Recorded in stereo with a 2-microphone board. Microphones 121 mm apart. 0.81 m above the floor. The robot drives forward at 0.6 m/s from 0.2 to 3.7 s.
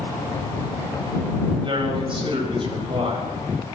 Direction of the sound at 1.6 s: 40° right (ahead or behind).